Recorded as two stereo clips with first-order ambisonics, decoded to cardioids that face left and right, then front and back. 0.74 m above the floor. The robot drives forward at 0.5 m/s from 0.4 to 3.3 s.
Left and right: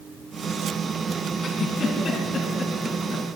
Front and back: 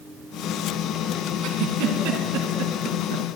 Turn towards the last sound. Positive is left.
turn(degrees=160)